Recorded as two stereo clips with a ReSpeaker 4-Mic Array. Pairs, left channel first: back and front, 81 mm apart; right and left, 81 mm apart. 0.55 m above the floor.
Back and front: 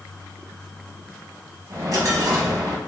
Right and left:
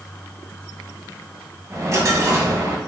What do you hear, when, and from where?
1.7 s a dropped coin: 40° left, 1.1 m